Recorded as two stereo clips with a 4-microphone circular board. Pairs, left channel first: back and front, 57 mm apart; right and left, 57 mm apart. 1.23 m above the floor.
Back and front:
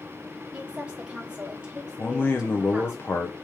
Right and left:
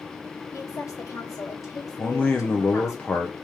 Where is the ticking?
I don't hear ticking.